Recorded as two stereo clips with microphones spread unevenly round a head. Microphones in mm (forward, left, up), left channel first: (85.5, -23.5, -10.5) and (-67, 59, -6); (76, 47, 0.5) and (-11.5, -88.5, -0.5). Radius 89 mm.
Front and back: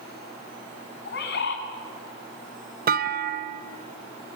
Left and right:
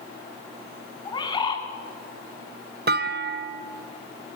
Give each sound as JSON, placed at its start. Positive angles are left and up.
{"t": 1.1, "sound": "a bird", "azimuth_deg": -5, "distance_m": 2.5}
{"t": 2.9, "sound": "a clunk", "azimuth_deg": -165, "distance_m": 0.7}